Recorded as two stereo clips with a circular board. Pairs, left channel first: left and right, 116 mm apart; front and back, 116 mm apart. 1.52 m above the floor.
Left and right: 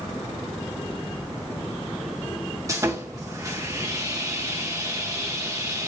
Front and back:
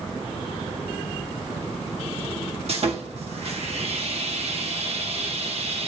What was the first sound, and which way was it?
Sawing, 150° right.